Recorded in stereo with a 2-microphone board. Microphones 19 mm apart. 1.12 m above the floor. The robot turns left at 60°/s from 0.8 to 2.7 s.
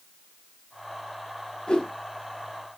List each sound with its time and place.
1.7 s a whoosh: 35° left (ahead or behind), 1.7 m; by 1.9 s 50° left (ahead or behind), 1.7 m